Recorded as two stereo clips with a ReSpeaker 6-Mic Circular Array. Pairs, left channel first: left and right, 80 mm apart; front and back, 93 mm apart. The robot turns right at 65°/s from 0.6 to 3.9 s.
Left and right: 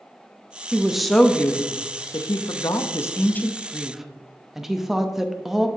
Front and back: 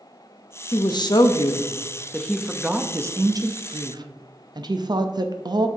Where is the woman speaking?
20° right, 0.7 m; by 5.7 s 175° right, 0.7 m.